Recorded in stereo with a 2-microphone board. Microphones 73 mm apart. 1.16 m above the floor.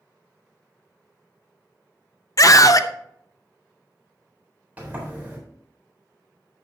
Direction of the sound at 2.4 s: 50° left (ahead or behind).